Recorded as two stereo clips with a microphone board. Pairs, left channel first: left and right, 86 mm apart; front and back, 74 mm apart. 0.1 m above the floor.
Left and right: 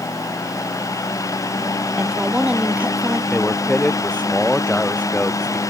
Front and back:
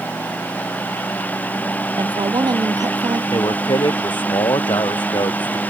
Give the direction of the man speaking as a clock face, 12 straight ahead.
11 o'clock.